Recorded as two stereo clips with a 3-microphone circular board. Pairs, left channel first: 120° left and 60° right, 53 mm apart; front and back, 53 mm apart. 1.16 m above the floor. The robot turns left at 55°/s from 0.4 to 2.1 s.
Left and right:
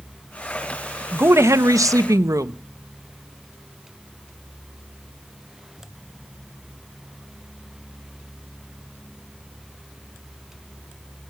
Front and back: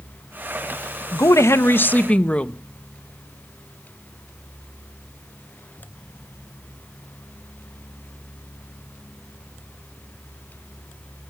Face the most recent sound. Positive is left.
turn(degrees=-65)